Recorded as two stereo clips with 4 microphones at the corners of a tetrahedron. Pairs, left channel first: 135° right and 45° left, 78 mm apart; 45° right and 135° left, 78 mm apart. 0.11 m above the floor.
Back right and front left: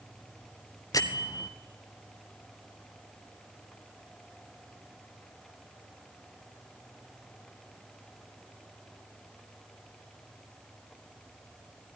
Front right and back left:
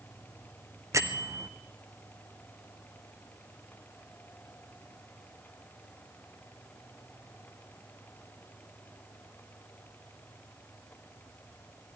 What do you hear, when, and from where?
0.9 s a bell: 175° right, 1.1 m